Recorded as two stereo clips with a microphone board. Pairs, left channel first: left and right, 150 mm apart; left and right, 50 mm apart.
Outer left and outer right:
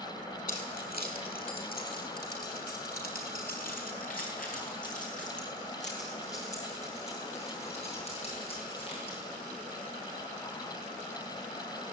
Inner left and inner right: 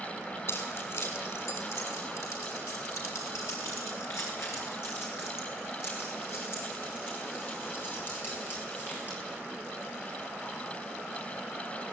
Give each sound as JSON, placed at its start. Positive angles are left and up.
{"t": 0.5, "sound": "keys jangling", "side_deg": 70, "distance_m": 6.0}